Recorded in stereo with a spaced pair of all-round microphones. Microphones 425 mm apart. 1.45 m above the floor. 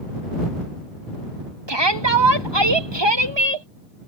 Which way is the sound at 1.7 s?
75° right (ahead or behind).